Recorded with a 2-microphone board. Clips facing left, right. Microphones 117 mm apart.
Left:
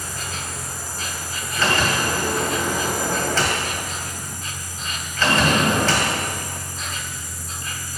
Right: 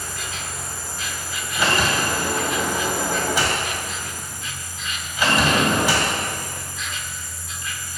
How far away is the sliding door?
About 2.5 m.